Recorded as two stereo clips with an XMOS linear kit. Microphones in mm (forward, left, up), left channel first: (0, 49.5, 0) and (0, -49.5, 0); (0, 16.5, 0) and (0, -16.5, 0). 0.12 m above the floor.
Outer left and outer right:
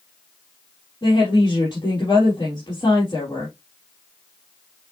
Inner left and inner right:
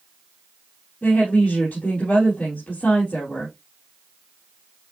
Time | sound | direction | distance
1.0 | a woman speaking | 40° left (ahead or behind) | 3 m